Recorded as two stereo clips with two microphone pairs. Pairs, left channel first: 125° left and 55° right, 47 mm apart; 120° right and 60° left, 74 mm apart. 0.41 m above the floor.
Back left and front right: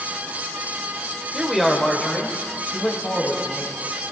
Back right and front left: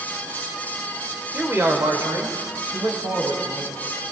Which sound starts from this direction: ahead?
A man speaking, at 1.3 s.